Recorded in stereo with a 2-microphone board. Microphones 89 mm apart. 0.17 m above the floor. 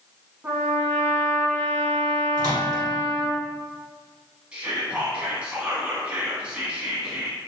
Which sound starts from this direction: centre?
Whispering, at 4.5 s.